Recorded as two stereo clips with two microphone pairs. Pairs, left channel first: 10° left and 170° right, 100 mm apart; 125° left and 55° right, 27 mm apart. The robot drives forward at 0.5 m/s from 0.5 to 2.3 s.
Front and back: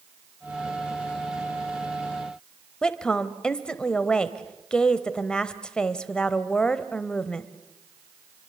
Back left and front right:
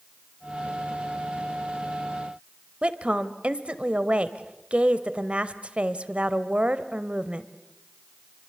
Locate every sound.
2.8 s a woman speaking: 65° right, 1.2 m